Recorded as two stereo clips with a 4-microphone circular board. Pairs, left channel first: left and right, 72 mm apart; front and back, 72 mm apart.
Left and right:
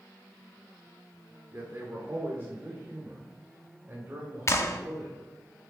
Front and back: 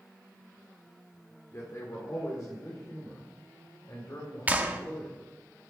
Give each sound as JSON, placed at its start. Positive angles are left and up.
{"t": 1.5, "sound": "a man speaking", "azimuth_deg": -40, "distance_m": 1.7}
{"t": 4.5, "sound": "a clap", "azimuth_deg": 120, "distance_m": 0.8}